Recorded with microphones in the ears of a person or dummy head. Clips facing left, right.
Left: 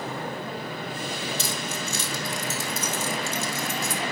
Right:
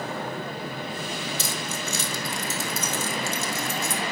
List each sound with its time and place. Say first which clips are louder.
1.4 s keys jangling: even; 65° right (ahead or behind), 0.8 m